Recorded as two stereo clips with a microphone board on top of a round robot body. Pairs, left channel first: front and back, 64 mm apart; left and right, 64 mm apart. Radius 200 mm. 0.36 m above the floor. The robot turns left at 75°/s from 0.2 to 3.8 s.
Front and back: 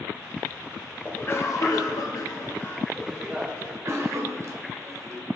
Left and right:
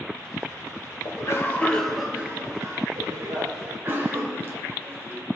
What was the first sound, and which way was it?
A cough, 65° left.